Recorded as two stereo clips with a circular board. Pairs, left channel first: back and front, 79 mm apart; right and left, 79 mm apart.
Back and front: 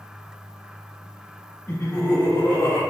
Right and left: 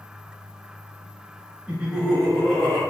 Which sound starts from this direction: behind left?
Laughter, at 1.7 s.